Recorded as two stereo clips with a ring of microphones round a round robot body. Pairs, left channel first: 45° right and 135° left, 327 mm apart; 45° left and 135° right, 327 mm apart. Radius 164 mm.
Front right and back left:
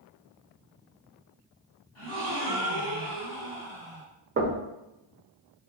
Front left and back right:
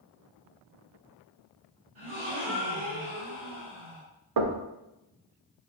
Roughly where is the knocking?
Behind.